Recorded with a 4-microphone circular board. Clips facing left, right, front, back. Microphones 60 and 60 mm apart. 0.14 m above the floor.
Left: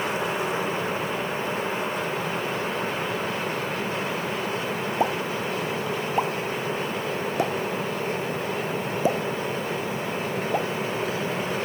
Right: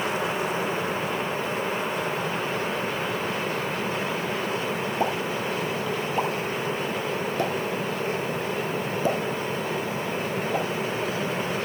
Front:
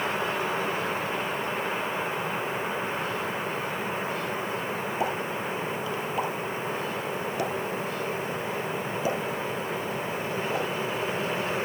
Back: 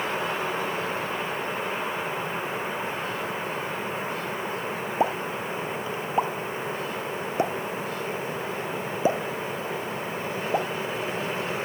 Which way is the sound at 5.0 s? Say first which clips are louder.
Left 2 dB, back 6 dB; 150° left.